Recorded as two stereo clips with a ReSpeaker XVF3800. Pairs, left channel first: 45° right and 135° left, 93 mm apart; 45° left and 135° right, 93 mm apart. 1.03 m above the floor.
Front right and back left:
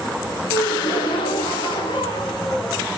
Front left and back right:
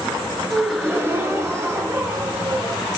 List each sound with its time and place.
0.5 s a gasp: 70° right, 0.8 m